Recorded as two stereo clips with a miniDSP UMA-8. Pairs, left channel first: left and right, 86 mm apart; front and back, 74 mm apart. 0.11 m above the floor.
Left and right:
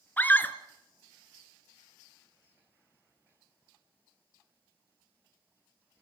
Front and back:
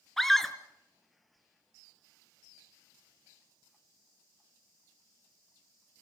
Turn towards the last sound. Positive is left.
turn(degrees=80)